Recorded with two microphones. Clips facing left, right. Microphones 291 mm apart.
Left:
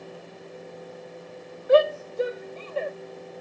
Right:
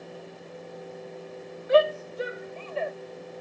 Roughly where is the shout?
Left.